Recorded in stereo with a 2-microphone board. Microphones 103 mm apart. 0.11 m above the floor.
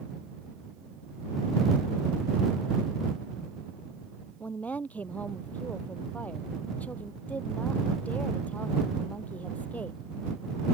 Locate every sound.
4.4 s a woman speaking: 15° left (ahead or behind)